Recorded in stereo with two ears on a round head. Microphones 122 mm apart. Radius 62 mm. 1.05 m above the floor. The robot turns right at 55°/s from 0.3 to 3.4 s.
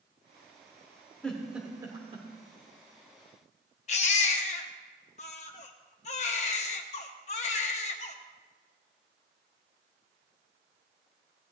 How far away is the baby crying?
About 0.9 m.